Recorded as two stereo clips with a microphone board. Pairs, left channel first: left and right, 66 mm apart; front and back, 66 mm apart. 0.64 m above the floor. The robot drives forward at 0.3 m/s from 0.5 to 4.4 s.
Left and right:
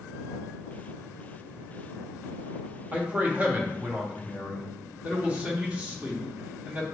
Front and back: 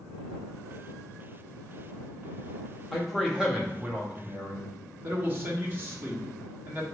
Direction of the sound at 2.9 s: 90° right.